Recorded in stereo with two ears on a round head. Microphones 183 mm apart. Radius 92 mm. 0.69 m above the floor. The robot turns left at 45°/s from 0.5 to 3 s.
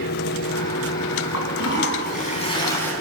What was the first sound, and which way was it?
A toilet flushing, 80° left.